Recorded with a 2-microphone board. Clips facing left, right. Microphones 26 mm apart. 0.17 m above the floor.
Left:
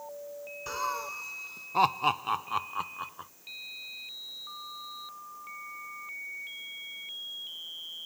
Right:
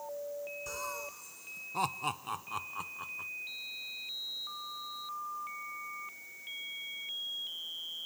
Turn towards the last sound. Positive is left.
turn(degrees=30)  # may be behind; listen again after turning